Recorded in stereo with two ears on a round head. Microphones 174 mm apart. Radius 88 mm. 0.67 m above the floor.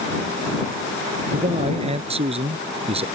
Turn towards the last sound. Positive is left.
turn(degrees=-35)  # may be behind; listen again after turning